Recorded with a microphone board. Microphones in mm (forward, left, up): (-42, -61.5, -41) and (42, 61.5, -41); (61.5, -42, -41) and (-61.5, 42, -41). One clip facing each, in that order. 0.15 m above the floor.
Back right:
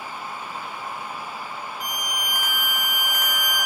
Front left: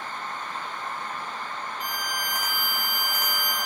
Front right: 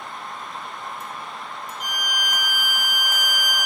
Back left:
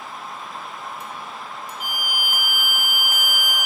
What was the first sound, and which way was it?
A violin, 120° left.